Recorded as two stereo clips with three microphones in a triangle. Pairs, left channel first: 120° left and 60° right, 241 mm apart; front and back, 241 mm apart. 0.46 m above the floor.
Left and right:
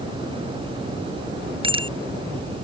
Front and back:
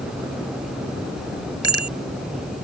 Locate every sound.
1.6 s a bicycle bell: 10° left